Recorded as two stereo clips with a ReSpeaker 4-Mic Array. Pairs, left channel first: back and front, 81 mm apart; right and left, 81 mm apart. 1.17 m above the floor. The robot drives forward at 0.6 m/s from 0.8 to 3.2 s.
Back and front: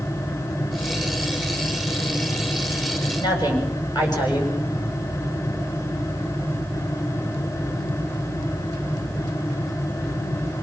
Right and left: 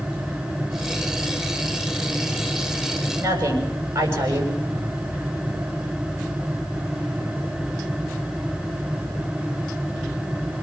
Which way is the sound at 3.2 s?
145° left.